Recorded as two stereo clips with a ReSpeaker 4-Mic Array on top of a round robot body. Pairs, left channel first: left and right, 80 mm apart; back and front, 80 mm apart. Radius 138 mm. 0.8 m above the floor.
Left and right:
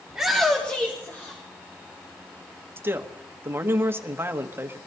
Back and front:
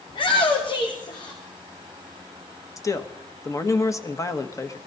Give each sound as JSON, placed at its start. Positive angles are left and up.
{"t": 0.1, "sound": "a shout", "azimuth_deg": -175, "distance_m": 1.7}
{"t": 2.8, "sound": "a man speaking", "azimuth_deg": -145, "distance_m": 1.4}